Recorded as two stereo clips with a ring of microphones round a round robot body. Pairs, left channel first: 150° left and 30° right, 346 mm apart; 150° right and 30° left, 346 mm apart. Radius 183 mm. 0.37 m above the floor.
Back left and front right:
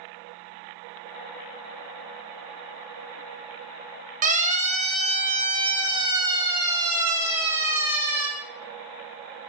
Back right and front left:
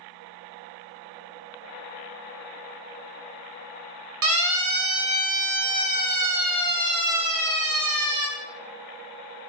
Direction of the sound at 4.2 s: 30° left.